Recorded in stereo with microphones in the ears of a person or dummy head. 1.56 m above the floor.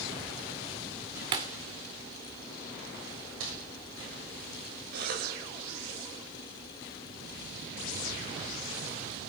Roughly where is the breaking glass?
Right.